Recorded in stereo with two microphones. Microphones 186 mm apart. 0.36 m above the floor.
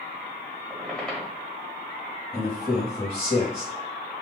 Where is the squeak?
5° left (ahead or behind), 1.0 m.